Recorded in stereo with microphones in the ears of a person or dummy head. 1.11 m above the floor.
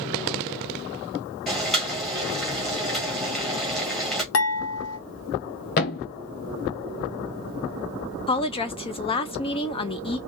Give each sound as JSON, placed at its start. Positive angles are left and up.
{"t": 1.5, "sound": "boiling", "side_deg": 5, "distance_m": 2.0}
{"t": 4.3, "sound": "dishes clattering", "side_deg": 85, "distance_m": 1.9}
{"t": 5.8, "sound": "a thud", "side_deg": 40, "distance_m": 0.6}
{"t": 8.3, "sound": "a woman speaking", "side_deg": 30, "distance_m": 0.7}